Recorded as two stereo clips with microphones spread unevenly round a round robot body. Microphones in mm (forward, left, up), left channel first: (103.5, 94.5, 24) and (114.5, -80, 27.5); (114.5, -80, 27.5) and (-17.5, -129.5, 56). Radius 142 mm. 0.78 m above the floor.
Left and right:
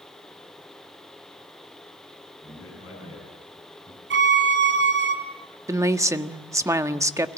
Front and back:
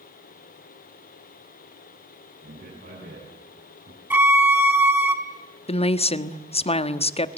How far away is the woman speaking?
About 1.5 m.